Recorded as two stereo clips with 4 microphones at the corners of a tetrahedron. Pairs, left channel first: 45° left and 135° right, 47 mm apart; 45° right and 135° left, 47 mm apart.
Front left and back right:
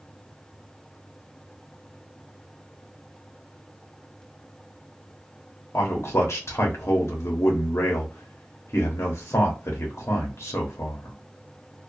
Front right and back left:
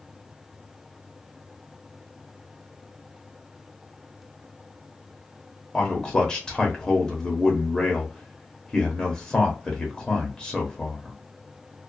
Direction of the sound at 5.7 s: 25° left.